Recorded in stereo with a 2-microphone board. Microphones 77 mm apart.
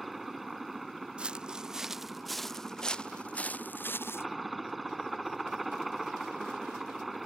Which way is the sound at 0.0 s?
Centre (ahead or behind).